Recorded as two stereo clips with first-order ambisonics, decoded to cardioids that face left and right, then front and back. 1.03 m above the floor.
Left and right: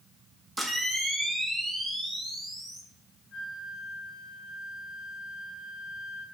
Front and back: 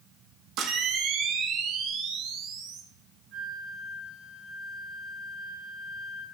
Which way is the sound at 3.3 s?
145° left.